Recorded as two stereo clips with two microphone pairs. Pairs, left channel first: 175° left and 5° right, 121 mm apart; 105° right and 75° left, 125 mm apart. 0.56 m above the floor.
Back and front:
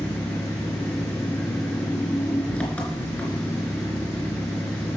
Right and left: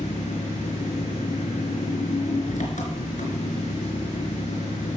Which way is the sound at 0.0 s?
100° right.